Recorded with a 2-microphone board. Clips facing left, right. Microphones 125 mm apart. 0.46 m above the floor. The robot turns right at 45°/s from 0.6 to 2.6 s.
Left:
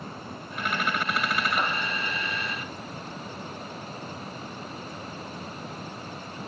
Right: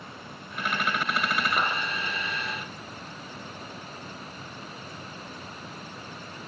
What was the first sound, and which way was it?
A clap, 75° right (ahead or behind).